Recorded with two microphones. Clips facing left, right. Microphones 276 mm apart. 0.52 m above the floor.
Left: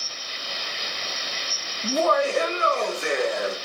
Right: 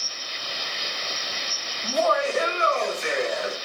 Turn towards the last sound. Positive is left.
turn(degrees=65)  # may be behind; listen again after turning